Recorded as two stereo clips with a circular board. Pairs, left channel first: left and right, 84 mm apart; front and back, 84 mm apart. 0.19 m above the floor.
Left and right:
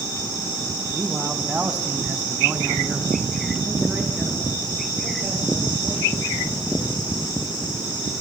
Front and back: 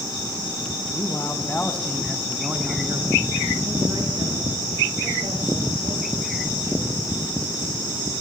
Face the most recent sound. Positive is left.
turn(degrees=-165)